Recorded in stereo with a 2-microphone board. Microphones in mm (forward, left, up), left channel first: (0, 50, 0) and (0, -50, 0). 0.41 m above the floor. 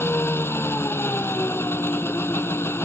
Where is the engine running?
25° left (ahead or behind).